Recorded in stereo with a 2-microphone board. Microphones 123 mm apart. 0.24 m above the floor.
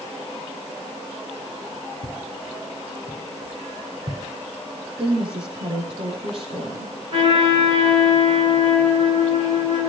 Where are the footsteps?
80° right, 2 m; by 4.2 s 45° right (ahead or behind), 4 m.